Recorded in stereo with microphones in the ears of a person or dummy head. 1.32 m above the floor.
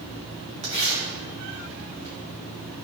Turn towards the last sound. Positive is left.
turn(degrees=-35)  # may be behind; listen again after turning